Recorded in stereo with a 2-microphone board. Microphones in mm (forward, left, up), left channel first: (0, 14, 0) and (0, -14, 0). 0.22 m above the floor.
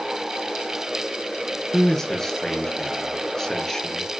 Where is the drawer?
No drawer in this recording.